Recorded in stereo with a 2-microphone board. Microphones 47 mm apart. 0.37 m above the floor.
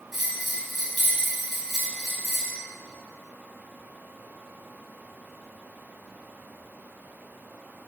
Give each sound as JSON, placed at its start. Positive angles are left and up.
{"t": 0.1, "sound": "a bell", "side_deg": -5, "distance_m": 2.5}